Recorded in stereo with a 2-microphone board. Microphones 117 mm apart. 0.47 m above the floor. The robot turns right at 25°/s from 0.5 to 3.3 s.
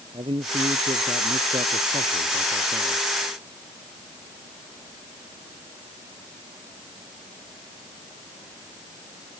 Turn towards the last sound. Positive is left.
turn(degrees=-55)